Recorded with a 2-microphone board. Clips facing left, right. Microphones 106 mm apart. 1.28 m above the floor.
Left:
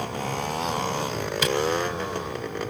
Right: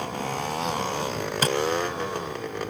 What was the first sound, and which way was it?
Tapping, 40° right (ahead or behind).